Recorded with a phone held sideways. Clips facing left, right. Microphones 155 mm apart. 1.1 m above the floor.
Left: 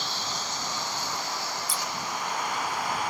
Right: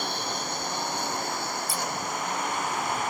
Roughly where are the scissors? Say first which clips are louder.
Right 2 dB; centre.